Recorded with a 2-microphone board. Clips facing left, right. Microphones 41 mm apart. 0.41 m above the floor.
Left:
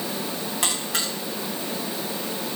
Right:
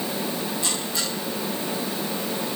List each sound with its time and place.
0.6 s a buzzer: 80° left, 6.5 m